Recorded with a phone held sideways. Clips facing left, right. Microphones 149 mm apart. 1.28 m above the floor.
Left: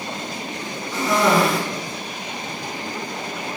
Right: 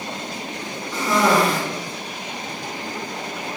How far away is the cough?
About 0.8 m.